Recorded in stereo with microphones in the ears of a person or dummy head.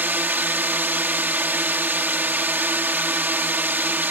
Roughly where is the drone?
Centre.